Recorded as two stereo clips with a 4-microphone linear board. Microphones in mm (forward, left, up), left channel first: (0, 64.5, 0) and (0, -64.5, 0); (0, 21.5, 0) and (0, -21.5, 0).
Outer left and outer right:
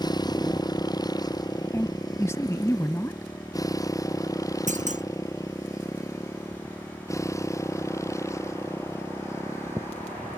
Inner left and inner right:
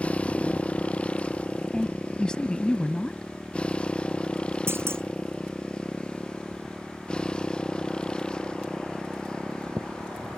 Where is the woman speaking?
20° left (ahead or behind).